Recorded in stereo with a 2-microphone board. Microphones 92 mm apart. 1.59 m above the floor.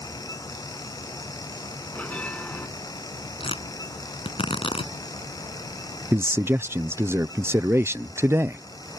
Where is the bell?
15° left (ahead or behind).